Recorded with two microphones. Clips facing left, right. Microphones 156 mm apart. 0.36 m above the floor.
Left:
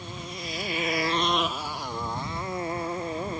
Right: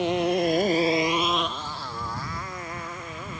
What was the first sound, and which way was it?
A motorcycle, 85° right.